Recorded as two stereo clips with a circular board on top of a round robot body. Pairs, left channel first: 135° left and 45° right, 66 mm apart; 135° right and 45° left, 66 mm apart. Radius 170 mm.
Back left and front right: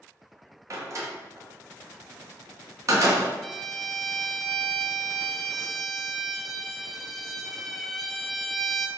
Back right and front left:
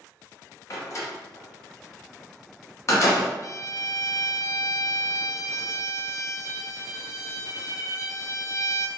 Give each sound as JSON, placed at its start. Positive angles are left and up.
{"t": 0.7, "sound": "a door slam", "azimuth_deg": -90, "distance_m": 0.7}
{"t": 3.4, "sound": "a violin", "azimuth_deg": -135, "distance_m": 0.5}